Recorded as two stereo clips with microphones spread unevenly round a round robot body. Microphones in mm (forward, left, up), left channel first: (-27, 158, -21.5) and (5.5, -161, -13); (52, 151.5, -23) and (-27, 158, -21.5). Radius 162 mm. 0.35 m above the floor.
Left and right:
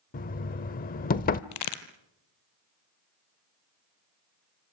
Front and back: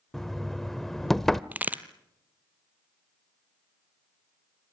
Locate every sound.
0.1 s knocking: 75° left, 0.5 m
1.5 s a crack: 105° left, 1.7 m